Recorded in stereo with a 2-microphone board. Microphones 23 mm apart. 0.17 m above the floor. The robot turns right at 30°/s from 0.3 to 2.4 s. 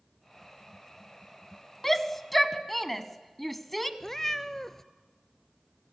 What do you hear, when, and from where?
1.8 s a shout: 10° left (ahead or behind), 1.0 m; by 3.9 s 5° left (ahead or behind), 1.0 m
4.0 s a cat meowing: 20° left (ahead or behind), 0.6 m